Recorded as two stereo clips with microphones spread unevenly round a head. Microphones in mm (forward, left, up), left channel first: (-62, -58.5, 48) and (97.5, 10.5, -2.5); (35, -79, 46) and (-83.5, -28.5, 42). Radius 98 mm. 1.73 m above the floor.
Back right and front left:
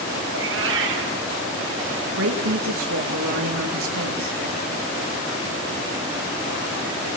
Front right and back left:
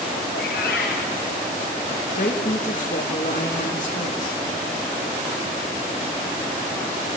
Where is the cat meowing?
15° left, 7.5 m.